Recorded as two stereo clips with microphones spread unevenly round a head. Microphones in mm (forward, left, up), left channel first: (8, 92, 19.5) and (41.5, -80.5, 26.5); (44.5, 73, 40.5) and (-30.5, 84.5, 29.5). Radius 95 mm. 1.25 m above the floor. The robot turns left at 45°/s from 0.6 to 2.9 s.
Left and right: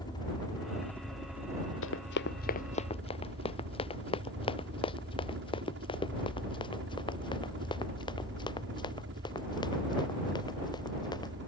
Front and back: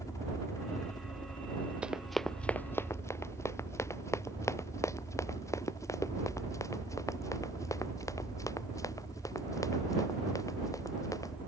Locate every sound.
0.0 s a helicopter: 35° left; by 11.5 s 70° right
1.8 s running footsteps: 95° left; by 11.3 s 35° left